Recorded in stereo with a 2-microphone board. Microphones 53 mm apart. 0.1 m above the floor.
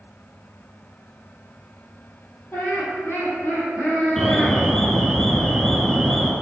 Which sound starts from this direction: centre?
An alarm, at 4.2 s.